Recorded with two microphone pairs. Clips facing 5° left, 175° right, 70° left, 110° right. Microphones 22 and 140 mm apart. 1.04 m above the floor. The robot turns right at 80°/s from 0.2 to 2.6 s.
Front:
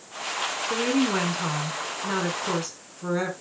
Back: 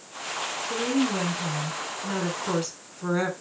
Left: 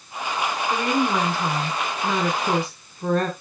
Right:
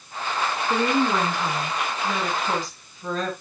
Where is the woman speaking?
55° right, 3 m; by 3.3 s 95° left, 3 m.